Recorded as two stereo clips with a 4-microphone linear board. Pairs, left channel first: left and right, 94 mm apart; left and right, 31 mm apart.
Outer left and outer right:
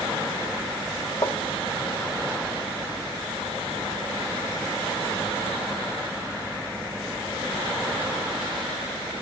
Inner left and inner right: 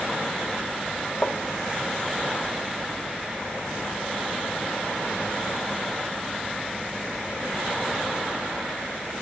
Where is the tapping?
45° left (ahead or behind), 0.7 m.